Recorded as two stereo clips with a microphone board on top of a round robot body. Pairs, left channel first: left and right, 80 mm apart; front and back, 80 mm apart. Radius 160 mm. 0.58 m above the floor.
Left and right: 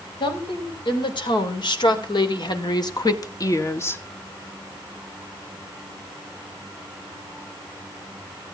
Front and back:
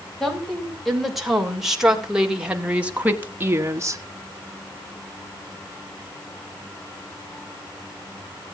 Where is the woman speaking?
90° left, 4.5 m; by 4.0 s 145° left, 1.5 m.